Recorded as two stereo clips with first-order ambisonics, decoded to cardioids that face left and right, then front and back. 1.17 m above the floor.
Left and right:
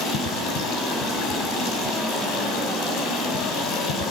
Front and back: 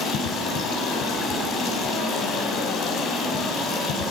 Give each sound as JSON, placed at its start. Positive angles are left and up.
{"t": 0.0, "sound": "running water", "azimuth_deg": 55, "distance_m": 5.0}